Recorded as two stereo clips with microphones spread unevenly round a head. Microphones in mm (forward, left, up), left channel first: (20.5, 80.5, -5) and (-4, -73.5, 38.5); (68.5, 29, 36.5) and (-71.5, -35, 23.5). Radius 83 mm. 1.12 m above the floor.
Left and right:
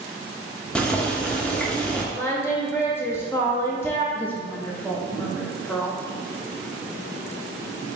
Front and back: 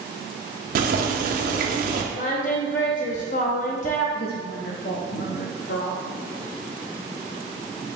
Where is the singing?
5° right, 0.7 m.